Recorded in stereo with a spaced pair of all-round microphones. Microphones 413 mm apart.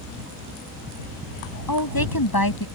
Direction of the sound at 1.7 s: 60° left (ahead or behind).